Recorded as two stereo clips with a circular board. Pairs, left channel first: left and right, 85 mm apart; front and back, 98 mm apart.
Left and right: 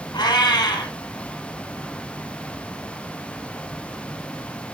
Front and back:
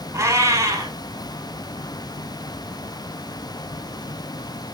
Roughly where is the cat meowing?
Behind left.